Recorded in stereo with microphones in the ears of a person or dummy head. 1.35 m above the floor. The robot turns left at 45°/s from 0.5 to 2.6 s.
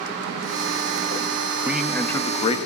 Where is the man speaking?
165° right, 1.7 m; by 2.6 s 155° left, 1.7 m.